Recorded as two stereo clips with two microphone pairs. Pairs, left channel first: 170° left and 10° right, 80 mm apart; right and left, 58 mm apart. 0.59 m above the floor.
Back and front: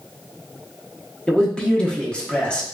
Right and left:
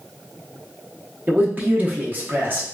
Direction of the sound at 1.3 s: 100° left.